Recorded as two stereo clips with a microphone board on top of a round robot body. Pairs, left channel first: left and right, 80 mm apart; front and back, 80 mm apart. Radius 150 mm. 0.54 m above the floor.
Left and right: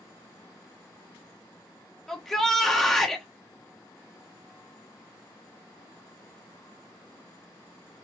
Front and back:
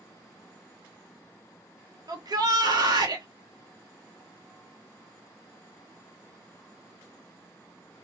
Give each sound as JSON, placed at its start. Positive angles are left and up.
{"t": 2.1, "sound": "a shout", "azimuth_deg": 175, "distance_m": 1.8}